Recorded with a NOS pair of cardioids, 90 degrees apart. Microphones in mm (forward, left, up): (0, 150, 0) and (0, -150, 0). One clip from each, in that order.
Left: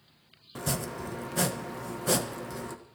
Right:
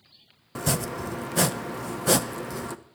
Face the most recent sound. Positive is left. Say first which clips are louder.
# right 5 dB
turn(degrees=-30)